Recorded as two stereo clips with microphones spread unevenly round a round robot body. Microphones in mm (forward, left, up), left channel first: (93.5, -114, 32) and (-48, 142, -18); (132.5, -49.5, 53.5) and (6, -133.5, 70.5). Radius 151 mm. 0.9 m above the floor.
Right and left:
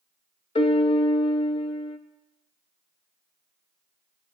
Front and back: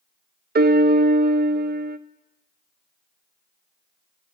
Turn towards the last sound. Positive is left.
turn(degrees=-140)